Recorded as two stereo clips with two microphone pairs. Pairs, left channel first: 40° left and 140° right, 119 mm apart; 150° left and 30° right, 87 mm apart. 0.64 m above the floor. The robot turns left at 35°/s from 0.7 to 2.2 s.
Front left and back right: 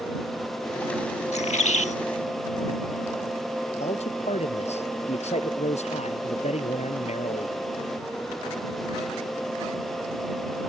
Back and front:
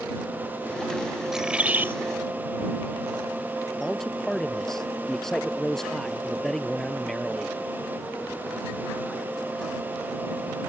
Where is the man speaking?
65° left.